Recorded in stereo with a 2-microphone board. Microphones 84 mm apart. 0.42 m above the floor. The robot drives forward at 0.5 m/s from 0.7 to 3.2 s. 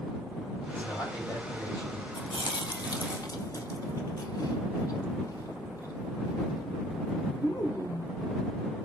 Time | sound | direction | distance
0.7 | a man speaking | 35° left (ahead or behind) | 1.9 m
2.1 | chewing | 80° left | 0.5 m